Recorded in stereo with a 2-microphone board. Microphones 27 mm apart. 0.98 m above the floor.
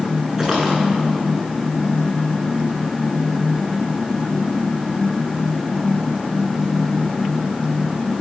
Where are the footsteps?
15° right (ahead or behind), 5 m.